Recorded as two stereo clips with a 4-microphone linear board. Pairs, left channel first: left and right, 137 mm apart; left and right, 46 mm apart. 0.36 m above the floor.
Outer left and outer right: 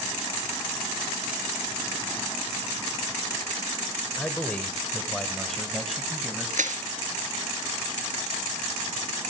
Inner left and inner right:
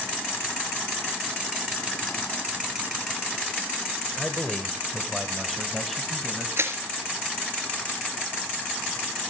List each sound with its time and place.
4.2 s a man speaking: 10° left (ahead or behind), 1.3 m; by 6.5 s centre (ahead or behind), 2 m
6.6 s crushing: 80° right, 2.5 m